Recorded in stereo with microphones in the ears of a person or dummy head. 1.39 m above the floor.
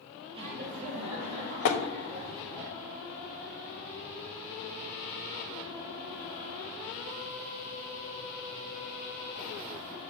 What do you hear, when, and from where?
0.3 s laughter: 30° right (ahead or behind), 0.8 m; by 2.6 s 55° right (ahead or behind), 3.5 m
1.6 s tapping: 60° left (ahead or behind), 0.8 m